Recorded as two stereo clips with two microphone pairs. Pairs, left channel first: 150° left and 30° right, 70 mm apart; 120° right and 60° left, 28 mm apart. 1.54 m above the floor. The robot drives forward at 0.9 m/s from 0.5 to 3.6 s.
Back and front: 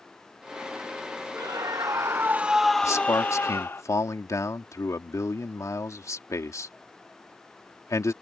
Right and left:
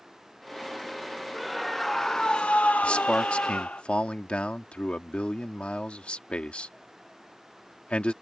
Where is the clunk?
No clunk in this recording.